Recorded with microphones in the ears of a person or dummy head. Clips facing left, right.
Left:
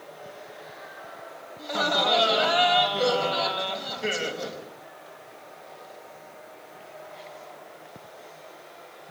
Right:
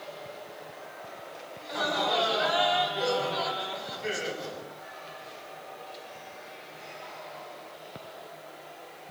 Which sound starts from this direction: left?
Laughter, at 1.6 s.